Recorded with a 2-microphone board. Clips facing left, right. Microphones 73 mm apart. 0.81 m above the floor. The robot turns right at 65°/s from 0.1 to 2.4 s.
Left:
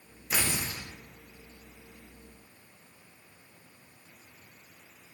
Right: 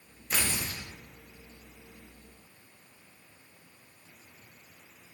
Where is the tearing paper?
5° left, 0.7 m; by 0.8 s 35° left, 0.7 m.